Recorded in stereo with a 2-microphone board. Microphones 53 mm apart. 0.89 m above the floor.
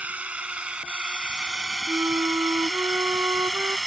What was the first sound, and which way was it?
A drone, 25° right (ahead or behind).